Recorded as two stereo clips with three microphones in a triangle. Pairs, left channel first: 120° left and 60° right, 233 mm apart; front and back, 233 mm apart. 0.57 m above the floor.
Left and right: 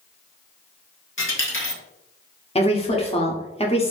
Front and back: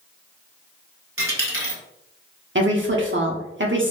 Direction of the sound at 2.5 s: Straight behind.